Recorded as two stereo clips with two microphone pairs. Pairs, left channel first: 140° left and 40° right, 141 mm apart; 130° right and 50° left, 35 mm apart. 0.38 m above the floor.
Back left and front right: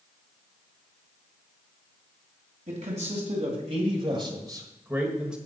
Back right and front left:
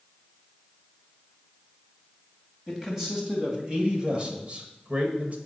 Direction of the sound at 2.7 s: 25° right.